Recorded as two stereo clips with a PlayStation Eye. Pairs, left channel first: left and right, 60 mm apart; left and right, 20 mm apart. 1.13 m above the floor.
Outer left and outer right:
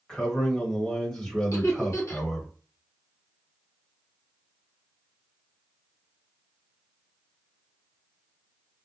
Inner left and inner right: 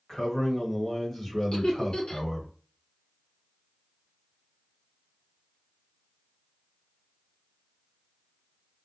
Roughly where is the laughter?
Left.